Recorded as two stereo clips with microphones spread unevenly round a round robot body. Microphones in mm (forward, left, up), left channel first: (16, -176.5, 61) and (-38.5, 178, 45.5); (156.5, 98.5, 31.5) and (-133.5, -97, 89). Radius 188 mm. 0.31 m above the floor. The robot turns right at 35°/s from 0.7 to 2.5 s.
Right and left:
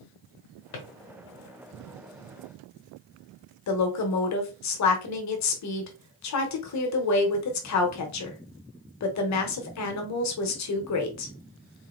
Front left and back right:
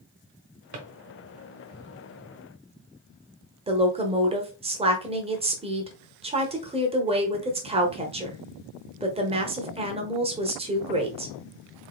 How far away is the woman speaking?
About 1.2 m.